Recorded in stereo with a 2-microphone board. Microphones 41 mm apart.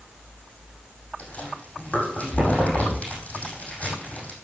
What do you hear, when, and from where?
1.2 s chewing: 35° left (ahead or behind), 5.5 m